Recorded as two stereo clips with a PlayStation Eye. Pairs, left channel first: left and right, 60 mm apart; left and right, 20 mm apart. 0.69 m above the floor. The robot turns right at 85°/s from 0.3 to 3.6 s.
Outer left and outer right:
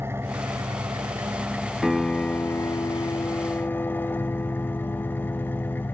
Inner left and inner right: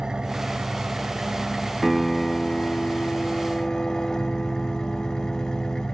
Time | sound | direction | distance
0.0 | an engine running | 135° right | 1.3 m
1.8 | a piano | straight ahead | 1.8 m